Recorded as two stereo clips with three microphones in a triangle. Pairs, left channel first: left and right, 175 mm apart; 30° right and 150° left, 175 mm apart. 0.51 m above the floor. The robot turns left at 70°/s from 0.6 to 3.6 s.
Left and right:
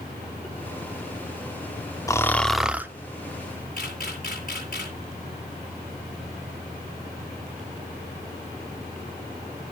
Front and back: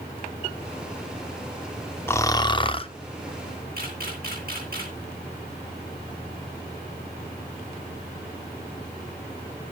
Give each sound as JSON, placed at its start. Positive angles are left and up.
{"t": 2.1, "sound": "snoring", "azimuth_deg": 35, "distance_m": 0.6}
{"t": 3.8, "sound": "a camera shutter", "azimuth_deg": 125, "distance_m": 6.5}